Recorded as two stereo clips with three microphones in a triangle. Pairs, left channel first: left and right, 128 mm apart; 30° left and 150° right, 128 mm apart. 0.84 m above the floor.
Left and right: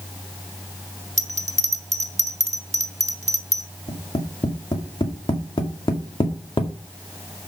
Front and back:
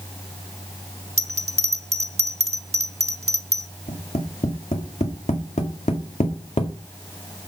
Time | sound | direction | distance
1.2 | a bell | 120° right | 1.1 m
3.9 | tapping | 45° left | 2 m